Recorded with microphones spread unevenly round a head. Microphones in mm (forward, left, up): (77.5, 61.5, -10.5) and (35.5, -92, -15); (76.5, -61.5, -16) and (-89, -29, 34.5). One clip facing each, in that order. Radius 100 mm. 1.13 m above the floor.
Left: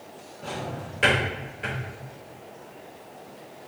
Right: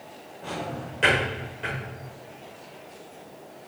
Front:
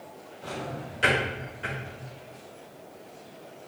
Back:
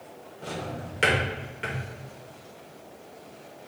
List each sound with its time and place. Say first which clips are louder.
0.4 s a drawer: right 1 dB, back 1 dB; 165° left, 2.0 m